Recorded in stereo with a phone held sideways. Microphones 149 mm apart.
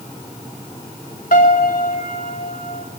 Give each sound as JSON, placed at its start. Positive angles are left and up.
{"t": 1.3, "sound": "a piano", "side_deg": 75, "distance_m": 3.5}